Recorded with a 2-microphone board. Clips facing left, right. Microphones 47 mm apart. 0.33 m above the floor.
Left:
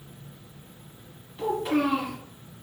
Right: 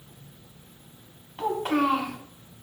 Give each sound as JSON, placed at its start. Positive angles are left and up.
{"t": 1.4, "sound": "a child speaking", "side_deg": -60, "distance_m": 1.1}